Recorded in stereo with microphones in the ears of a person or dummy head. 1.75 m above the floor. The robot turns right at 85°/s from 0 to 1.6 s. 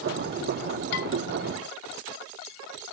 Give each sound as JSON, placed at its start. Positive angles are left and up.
{"t": 0.9, "sound": "dishes clattering", "side_deg": 50, "distance_m": 4.5}